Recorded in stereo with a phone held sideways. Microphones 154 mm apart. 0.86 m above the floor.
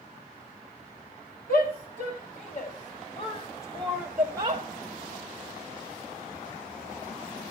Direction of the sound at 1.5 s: 70° left (ahead or behind).